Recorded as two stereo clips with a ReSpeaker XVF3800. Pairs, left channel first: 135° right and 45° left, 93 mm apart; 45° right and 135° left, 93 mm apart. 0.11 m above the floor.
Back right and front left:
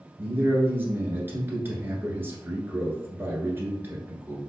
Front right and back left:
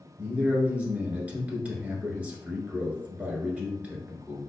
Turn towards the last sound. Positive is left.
turn(degrees=75)